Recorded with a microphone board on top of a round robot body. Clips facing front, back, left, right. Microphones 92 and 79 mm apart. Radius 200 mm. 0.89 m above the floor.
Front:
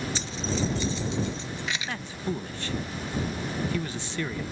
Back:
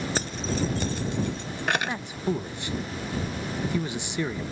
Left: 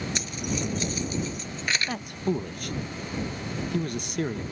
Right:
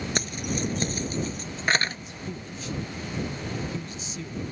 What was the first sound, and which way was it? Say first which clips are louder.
Keys jangling: back 3 dB, right 1 dB; 135° right.